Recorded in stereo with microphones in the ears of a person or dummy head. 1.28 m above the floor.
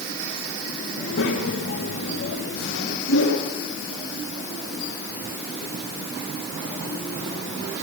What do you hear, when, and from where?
1.0 s a child speaking: 80° left, 4 m; by 3.0 s 60° left (ahead or behind), 3 m
3.1 s a whoosh: 75° left (ahead or behind), 6 m